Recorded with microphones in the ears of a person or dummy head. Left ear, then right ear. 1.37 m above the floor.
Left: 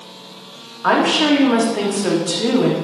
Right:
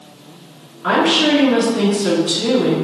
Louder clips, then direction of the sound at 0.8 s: Even; 40° left (ahead or behind).